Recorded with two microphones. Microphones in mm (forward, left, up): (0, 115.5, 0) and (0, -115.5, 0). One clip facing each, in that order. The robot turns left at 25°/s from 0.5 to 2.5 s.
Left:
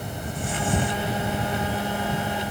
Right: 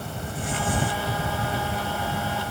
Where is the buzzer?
I don't hear a buzzer.